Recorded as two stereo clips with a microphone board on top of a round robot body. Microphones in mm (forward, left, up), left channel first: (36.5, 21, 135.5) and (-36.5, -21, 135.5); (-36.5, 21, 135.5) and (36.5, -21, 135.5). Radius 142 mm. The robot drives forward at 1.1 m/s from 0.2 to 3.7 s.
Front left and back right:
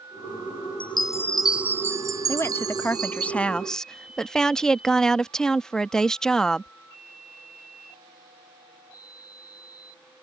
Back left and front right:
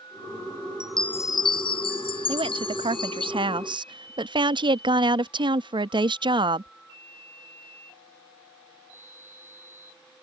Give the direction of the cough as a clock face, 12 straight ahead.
I don't hear a cough.